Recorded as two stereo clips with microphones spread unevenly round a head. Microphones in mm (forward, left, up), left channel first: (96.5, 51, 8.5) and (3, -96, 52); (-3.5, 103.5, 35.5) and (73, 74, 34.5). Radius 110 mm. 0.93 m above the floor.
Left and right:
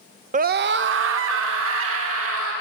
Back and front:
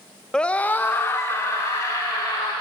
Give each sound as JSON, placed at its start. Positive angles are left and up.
{"t": 0.3, "sound": "a scream", "azimuth_deg": -130, "distance_m": 0.7}